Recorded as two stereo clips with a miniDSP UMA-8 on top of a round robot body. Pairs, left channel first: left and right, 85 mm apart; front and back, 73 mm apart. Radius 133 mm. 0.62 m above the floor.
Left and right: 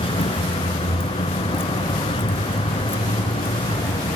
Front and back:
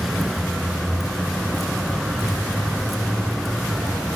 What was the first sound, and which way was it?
A vehicle, 90° left.